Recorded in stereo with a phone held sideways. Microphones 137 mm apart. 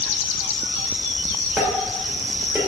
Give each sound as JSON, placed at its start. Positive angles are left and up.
{"t": 1.6, "sound": "dishes clattering", "side_deg": -20, "distance_m": 2.0}